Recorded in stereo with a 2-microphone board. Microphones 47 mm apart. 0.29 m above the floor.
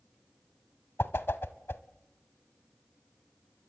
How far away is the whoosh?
About 0.9 m.